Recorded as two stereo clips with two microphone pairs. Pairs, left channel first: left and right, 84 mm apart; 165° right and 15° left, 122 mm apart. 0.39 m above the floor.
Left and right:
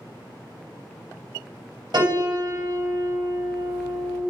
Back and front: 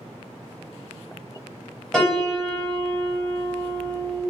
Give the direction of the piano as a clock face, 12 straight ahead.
3 o'clock.